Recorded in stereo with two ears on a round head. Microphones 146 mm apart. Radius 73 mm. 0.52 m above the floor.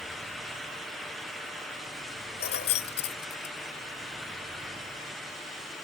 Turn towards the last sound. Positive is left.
turn(degrees=65)  # may be behind; listen again after turning